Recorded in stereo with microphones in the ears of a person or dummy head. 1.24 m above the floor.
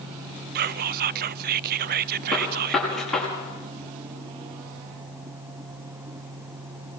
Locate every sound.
0.6 s whispering: 50° right (ahead or behind), 0.6 m
2.3 s a gunshot: 5° left (ahead or behind), 5.5 m